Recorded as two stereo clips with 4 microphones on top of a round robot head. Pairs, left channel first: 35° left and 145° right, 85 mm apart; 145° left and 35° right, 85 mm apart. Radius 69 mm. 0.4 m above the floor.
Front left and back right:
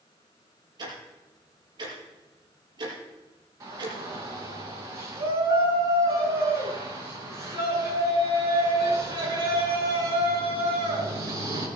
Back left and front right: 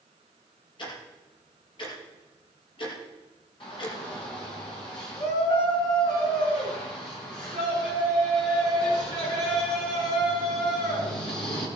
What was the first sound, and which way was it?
Ticking, 175° left.